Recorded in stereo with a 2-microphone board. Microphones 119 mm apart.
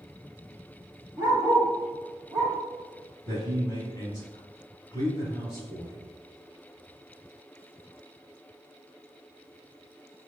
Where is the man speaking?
30° left (ahead or behind), 1.4 m.